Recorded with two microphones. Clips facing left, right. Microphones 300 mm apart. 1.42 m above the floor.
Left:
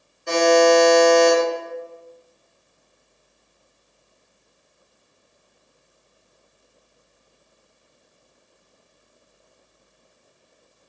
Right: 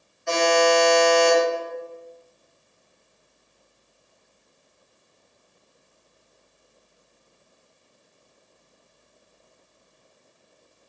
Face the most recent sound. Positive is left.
turn(degrees=45)  # may be behind; listen again after turning